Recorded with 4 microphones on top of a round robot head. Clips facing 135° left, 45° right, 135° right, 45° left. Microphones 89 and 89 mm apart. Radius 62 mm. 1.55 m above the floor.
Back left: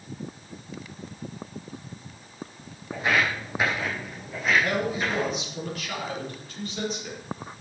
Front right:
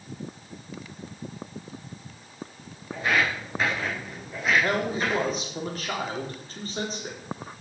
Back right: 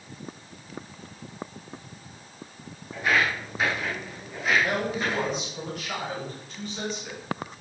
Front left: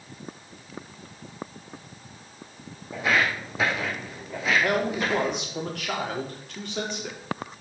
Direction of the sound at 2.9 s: 65° left.